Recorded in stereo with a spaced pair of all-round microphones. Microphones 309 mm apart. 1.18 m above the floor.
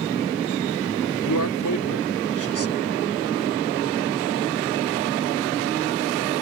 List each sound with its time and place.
1.2 s a man speaking: 75° left (ahead or behind)